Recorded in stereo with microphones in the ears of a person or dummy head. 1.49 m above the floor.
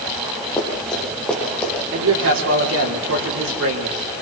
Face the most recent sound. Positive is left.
turn(degrees=-70)  # may be behind; listen again after turning